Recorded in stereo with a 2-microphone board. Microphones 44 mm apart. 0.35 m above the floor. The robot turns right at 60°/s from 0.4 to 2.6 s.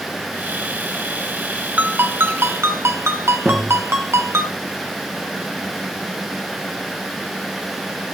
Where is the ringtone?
145° right, 1.6 m; by 4.5 s 95° right, 1.6 m.